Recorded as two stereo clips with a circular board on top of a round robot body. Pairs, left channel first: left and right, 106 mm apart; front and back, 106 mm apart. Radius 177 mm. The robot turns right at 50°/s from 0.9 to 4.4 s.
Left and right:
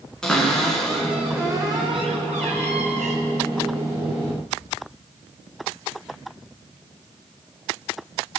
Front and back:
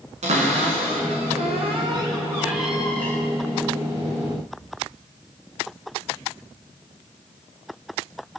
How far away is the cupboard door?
About 1.6 m.